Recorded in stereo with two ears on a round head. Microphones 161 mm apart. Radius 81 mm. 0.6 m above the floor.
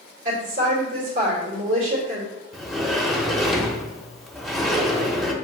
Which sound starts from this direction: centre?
A sliding door, at 2.5 s.